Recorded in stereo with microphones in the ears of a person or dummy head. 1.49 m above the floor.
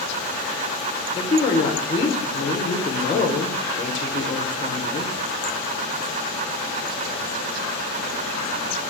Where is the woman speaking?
30° left (ahead or behind), 0.6 m.